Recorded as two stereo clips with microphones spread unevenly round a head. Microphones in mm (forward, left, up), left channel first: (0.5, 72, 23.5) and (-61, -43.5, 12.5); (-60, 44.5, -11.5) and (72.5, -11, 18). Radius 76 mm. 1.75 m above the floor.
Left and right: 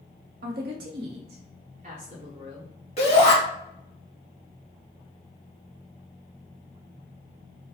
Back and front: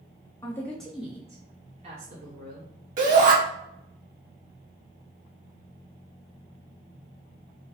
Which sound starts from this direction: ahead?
A shout, at 3.0 s.